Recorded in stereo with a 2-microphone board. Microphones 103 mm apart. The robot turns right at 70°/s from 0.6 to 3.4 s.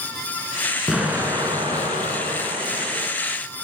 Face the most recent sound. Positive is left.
turn(degrees=0)